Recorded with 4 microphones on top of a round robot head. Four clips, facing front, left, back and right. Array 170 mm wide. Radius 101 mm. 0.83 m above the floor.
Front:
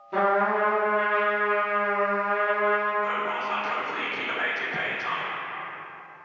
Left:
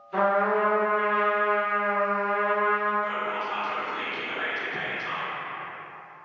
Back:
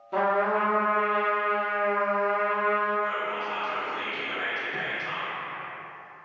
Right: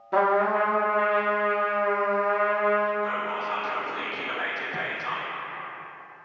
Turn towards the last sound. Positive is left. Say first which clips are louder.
# right 1 dB, front 2 dB
turn(degrees=-50)